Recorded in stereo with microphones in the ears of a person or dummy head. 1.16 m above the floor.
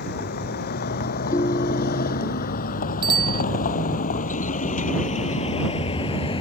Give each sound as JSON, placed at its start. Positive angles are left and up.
{"t": 0.0, "sound": "a vehicle", "side_deg": 55}
{"t": 1.3, "sound": "a ringtone", "side_deg": 20}
{"t": 3.0, "sound": "a bicycle bell", "side_deg": -25}